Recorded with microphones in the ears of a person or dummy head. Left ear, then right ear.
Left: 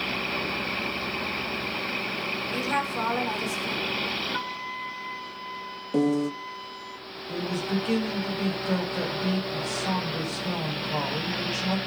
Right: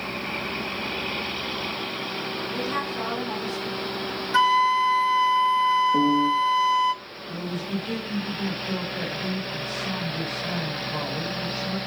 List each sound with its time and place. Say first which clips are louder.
2.5 s a woman speaking: left 2 dB; 40° left (ahead or behind), 7 m; by 3.9 s 45° left (ahead or behind), 6.5 m
4.3 s a flute: right 14 dB; 40° right (ahead or behind), 0.8 m
5.9 s a piano: right 5 dB; 80° left, 1.2 m
7.3 s a man speaking: left 3 dB; 50° left (ahead or behind), 6.5 m